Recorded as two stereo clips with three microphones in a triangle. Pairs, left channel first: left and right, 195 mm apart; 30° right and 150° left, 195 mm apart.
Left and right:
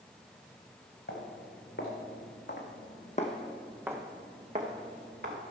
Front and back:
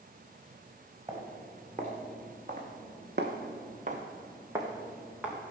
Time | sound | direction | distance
1.1 | footsteps | 90° left | 4 m